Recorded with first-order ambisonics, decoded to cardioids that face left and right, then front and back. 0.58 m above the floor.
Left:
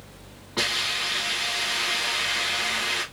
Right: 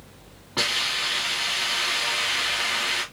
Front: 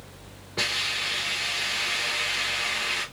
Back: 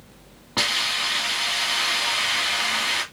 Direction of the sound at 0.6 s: 175° right.